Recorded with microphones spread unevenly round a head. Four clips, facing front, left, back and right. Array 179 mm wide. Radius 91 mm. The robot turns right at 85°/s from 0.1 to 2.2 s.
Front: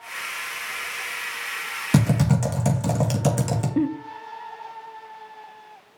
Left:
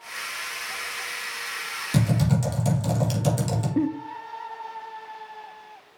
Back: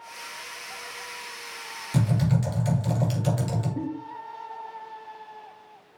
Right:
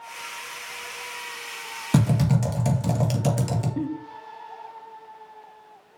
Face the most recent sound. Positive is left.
turn(degrees=35)